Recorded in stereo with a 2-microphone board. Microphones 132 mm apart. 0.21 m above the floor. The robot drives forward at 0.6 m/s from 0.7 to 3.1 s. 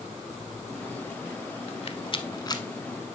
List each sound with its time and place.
1.7 s a rattle: 50° left (ahead or behind), 0.5 m; by 2.6 s 30° left (ahead or behind), 0.8 m